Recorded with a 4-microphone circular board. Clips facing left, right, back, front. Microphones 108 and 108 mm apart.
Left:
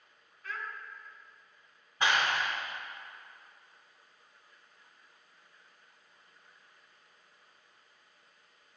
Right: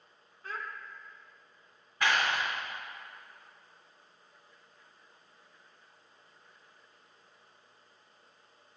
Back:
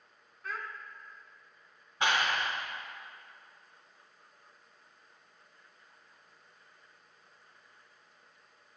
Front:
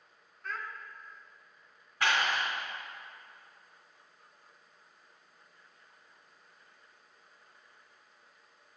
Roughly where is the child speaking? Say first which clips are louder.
Right 1 dB, even; right.